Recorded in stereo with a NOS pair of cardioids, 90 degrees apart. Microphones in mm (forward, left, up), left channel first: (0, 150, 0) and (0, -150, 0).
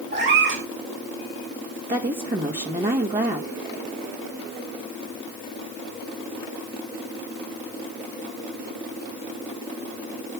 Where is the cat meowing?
40° right, 3 m.